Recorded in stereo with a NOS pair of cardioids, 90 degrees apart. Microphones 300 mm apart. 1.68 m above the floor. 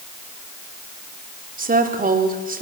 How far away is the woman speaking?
About 4.5 m.